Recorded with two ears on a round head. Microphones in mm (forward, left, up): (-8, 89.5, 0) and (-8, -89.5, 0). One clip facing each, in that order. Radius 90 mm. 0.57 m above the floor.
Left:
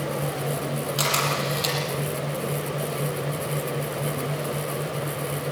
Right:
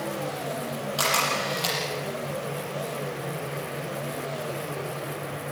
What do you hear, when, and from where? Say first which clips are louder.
1.0 s a camera shutter: left 2 dB; 20° left (ahead or behind), 6 m